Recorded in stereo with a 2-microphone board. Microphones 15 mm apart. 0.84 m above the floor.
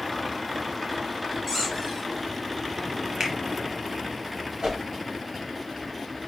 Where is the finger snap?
55° right (ahead or behind), 1.2 m.